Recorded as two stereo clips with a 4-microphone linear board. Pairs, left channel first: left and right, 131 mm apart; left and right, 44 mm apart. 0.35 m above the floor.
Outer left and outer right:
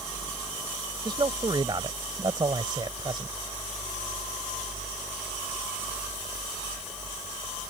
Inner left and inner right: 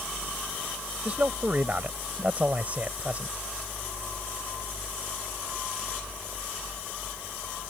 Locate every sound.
1.1 s a man speaking: 35° right (ahead or behind)